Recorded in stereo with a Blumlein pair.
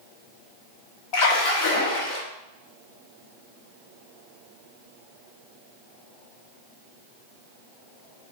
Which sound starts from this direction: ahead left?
A splash, at 1.1 s.